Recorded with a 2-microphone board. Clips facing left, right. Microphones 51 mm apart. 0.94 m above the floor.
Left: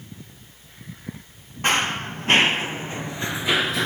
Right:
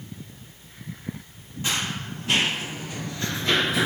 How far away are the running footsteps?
About 1.8 m.